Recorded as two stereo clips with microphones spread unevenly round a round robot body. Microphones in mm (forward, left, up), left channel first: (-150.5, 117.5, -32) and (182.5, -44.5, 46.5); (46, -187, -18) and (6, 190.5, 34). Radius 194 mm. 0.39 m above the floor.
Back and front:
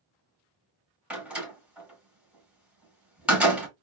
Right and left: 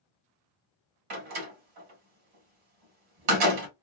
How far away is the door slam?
About 3 m.